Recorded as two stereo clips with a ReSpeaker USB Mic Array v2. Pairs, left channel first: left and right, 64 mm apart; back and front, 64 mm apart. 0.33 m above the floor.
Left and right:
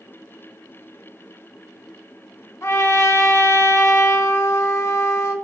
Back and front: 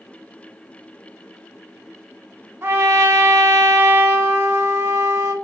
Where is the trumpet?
50° left, 0.5 m.